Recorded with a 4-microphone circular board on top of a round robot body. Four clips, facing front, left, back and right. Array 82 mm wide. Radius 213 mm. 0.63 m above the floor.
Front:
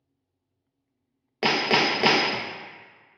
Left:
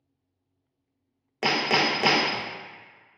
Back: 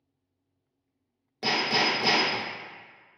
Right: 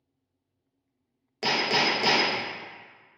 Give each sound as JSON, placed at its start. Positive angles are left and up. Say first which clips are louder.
{"t": 1.4, "sound": "hammering", "louder": "left 2 dB, front 4 dB", "azimuth_deg": 30, "distance_m": 0.5}